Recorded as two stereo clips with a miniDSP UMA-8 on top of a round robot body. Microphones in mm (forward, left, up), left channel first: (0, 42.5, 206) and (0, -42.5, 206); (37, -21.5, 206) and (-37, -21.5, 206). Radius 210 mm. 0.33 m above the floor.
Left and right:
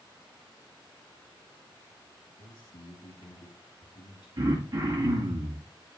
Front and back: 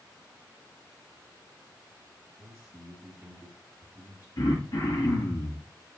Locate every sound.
2.4 s a man speaking: 125° left, 7.5 m
4.4 s throat clearing: 40° right, 5.5 m